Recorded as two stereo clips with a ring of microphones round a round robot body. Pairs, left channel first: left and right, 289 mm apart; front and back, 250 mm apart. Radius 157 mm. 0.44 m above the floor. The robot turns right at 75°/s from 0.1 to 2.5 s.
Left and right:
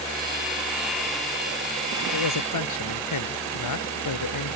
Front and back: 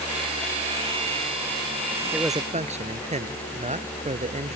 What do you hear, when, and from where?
2.1 s a man speaking: 90° left; by 4.6 s 115° left